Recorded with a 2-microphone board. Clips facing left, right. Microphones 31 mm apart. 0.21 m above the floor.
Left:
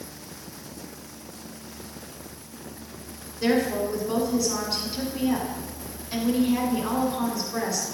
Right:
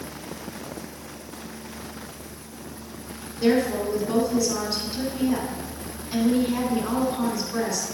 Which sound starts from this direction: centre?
A woman speaking, at 3.4 s.